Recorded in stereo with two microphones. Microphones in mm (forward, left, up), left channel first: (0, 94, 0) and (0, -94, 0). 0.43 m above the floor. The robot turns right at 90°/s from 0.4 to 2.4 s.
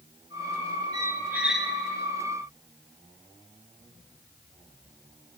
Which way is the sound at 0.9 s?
20° right (ahead or behind).